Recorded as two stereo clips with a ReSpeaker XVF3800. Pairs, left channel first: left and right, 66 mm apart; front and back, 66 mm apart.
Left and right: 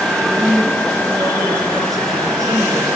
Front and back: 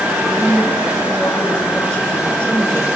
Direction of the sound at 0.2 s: 75° right.